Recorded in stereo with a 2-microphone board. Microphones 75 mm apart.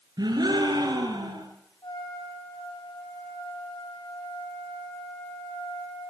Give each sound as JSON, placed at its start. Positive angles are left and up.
{"t": 0.2, "sound": "a gasp", "side_deg": -65, "distance_m": 6.5}
{"t": 1.8, "sound": "a trumpet", "side_deg": 65, "distance_m": 6.0}